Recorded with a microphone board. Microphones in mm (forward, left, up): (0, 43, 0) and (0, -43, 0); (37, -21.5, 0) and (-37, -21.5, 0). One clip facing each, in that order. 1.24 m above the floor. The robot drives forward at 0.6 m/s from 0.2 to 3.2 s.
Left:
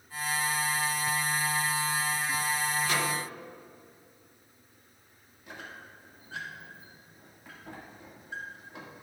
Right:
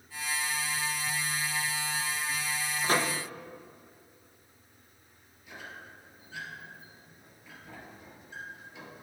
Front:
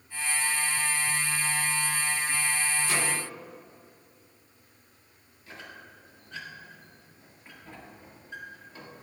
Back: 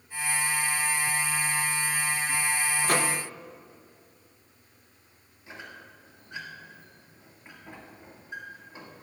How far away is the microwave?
About 0.6 m.